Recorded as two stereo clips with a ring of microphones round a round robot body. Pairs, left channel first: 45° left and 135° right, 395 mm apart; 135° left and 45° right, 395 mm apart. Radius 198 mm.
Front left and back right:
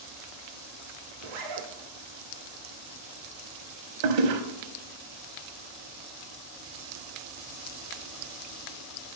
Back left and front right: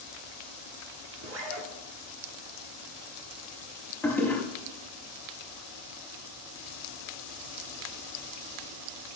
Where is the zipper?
100° right, 1.0 m.